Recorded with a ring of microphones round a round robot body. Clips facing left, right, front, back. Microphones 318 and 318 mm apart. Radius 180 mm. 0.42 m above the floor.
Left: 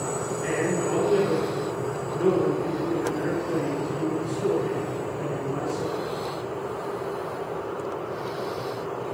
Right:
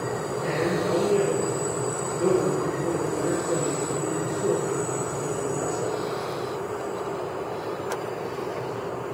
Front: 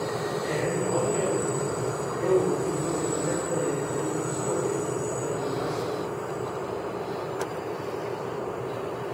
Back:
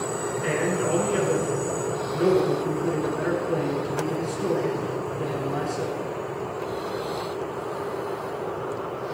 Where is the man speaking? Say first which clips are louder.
Even, back 4 dB; 160° left, 7 m.